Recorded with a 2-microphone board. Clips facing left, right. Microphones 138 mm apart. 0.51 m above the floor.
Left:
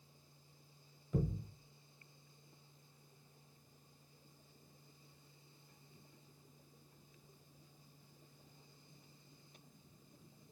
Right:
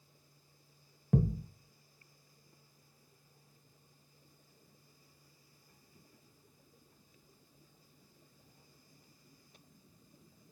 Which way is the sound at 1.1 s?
80° right.